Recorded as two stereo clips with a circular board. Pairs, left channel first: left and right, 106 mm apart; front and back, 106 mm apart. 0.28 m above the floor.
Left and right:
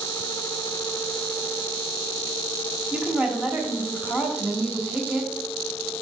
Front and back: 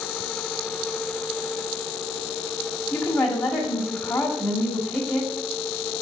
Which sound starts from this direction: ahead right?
A woman speaking, at 2.9 s.